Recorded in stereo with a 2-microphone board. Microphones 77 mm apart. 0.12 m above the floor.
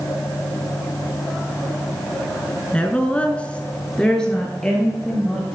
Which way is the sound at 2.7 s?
15° left (ahead or behind).